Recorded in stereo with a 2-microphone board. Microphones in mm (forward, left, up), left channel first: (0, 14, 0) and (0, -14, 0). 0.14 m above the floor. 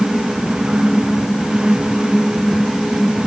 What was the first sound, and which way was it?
Only background noise.